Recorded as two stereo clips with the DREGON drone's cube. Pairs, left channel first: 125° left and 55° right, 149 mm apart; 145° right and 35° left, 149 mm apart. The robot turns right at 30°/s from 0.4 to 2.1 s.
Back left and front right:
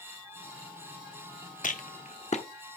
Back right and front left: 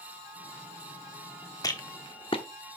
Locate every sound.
1.6 s a rattle: 150° left, 1.0 m; by 2.4 s 160° left, 1.0 m